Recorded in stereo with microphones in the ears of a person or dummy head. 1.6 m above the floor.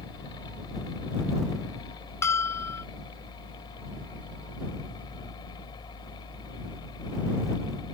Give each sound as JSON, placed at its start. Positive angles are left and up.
{"t": 0.0, "sound": "a fan", "side_deg": 25}
{"t": 2.2, "sound": "a bell", "side_deg": 15}